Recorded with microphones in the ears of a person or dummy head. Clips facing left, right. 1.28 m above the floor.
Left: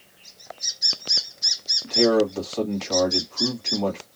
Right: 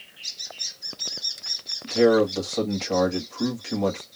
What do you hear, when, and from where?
1.8 s a man speaking: 15° right (ahead or behind), 1.8 m